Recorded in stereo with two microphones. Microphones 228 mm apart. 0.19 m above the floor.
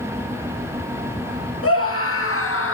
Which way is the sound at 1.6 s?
70° left (ahead or behind).